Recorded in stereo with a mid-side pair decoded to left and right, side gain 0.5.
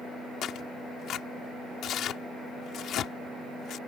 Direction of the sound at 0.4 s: 60° left.